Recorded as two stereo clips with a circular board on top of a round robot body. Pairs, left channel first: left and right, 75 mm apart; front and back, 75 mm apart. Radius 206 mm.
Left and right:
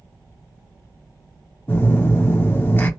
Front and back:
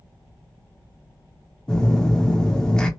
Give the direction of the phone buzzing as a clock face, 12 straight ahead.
10 o'clock.